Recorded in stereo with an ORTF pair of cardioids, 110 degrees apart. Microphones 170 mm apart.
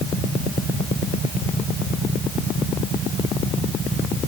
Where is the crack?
I don't hear a crack.